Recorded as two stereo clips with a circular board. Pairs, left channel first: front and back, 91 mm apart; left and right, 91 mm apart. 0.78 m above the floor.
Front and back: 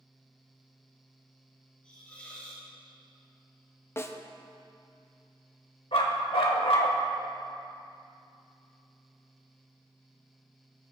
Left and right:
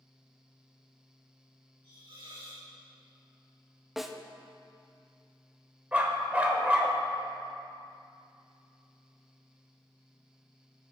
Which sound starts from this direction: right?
A hiss, at 1.8 s.